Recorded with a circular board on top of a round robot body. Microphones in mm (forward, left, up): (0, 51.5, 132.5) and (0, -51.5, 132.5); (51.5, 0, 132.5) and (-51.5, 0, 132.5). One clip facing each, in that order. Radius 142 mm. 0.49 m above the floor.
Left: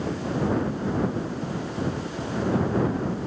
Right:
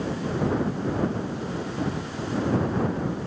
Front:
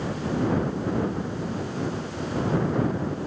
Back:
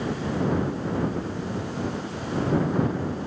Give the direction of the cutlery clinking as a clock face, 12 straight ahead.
No cutlery clinking in this recording.